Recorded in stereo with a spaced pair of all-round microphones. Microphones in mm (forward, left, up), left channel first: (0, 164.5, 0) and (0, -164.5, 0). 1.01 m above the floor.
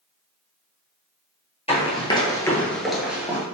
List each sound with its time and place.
1.7 s running footsteps: 20° left (ahead or behind), 1.2 m; by 3.4 s 10° right (ahead or behind), 1.1 m